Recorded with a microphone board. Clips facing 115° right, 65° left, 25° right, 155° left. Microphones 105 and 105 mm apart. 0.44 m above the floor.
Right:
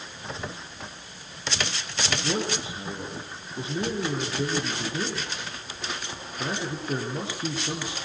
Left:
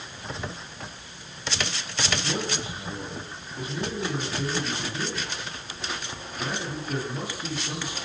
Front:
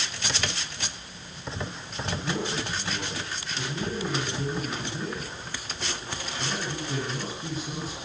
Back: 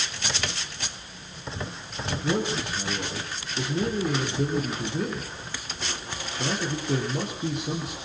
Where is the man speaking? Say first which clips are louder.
Right 2 dB, back 4 dB; 175° right, 7 m.